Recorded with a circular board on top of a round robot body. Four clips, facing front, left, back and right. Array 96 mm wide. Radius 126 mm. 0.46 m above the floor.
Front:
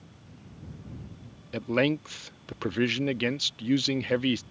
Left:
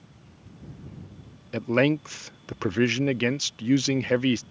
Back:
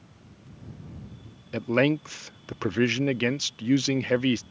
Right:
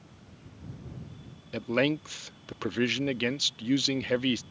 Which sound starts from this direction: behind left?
A man speaking, at 1.5 s.